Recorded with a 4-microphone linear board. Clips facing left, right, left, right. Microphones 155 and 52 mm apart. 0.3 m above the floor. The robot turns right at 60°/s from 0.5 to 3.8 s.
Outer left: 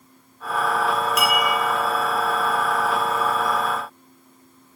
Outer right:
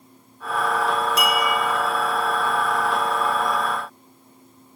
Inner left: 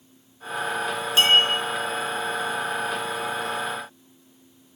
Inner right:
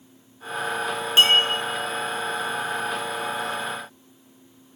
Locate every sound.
1.2 s a clink: 30° right (ahead or behind), 0.8 m; by 1.4 s 20° right (ahead or behind), 0.8 m